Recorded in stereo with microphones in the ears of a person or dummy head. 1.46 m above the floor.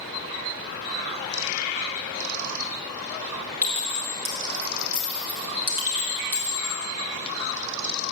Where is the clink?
45° right (ahead or behind), 1.3 m.